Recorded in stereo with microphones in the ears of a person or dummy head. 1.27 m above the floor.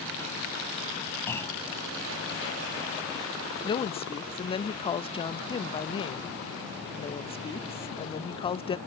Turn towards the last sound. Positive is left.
turn(degrees=20)  # may be behind; listen again after turning